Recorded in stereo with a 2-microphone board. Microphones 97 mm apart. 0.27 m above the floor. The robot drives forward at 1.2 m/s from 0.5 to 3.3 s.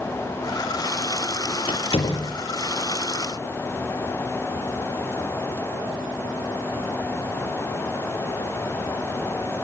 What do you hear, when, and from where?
1.7 s a door slam: 75° left (ahead or behind), 5 m; by 2.3 s 70° left (ahead or behind), 5 m